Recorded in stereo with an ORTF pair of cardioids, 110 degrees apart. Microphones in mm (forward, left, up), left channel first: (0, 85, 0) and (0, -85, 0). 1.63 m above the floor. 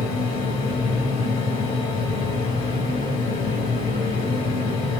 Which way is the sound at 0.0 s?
45° left.